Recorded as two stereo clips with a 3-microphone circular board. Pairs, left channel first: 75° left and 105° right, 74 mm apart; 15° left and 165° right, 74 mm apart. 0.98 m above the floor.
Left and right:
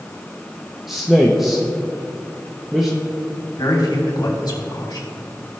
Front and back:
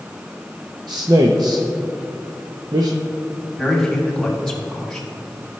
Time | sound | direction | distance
0.9 | a man speaking | 170° left | 0.7 m
3.6 | a man speaking | 100° left | 2.5 m